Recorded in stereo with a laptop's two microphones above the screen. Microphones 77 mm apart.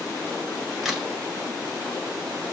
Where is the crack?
5° right (ahead or behind), 1.1 m.